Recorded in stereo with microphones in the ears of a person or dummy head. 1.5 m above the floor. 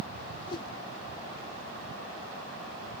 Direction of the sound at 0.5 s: 30° left (ahead or behind).